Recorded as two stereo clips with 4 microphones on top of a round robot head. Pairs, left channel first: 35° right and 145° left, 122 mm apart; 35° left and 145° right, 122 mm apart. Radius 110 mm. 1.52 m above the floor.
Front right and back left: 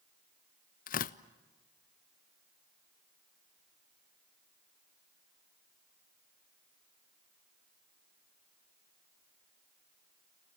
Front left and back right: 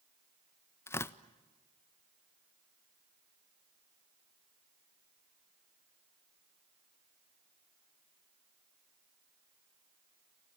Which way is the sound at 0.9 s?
35° right.